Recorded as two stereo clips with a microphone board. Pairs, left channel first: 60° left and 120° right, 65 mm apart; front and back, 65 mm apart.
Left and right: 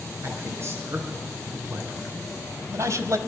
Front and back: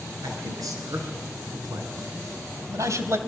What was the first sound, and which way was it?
A man speaking, 165° right.